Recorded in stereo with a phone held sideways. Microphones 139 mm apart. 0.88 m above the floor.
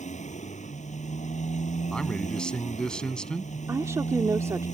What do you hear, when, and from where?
0.0 s a motorcycle: 60° left (ahead or behind)
1.9 s a man speaking: 5° left (ahead or behind)
3.7 s a woman speaking: 20° right (ahead or behind)